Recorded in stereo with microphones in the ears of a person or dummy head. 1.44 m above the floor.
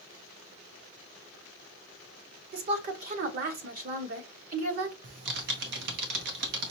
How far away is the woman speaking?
About 1.4 m.